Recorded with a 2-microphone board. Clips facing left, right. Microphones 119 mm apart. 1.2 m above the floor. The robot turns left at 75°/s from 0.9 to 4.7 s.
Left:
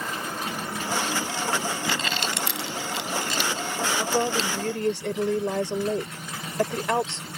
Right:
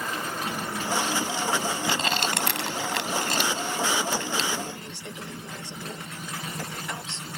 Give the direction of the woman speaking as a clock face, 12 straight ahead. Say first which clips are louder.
Left 4 dB; 8 o'clock.